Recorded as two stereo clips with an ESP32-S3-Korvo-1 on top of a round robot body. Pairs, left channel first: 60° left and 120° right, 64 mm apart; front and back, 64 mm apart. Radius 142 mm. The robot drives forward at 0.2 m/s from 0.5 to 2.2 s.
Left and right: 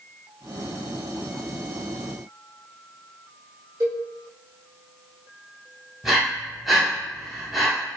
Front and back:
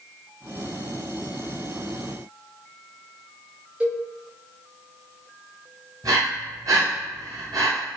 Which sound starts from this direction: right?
A cowbell, at 3.8 s.